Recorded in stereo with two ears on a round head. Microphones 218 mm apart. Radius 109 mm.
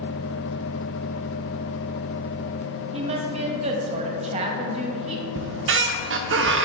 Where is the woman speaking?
25° right (ahead or behind), 1.2 m.